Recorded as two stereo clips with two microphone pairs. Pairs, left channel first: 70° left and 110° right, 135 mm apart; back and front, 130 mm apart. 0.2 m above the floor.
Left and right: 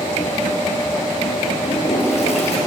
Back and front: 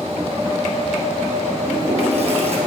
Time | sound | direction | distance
1.6 | a toilet flushing | 35° left | 3.5 m